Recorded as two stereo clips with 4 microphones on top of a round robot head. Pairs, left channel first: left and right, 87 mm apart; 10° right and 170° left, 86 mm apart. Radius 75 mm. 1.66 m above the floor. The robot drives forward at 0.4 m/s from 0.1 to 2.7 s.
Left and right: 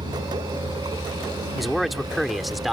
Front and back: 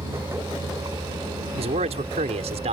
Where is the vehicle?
130° right; by 2.7 s 135° right.